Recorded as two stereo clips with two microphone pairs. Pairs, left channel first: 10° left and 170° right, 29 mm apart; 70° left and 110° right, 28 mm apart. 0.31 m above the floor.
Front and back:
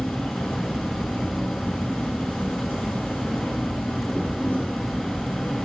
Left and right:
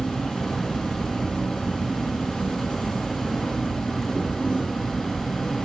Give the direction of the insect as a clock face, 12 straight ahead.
12 o'clock.